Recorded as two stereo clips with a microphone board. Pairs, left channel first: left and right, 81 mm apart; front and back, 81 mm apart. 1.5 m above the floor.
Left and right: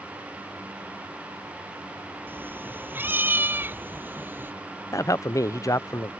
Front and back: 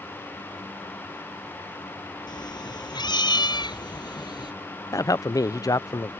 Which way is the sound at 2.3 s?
25° right.